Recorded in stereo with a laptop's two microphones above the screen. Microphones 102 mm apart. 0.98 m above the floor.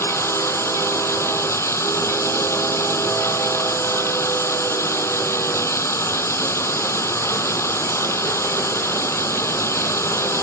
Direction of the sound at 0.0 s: 25° left (ahead or behind).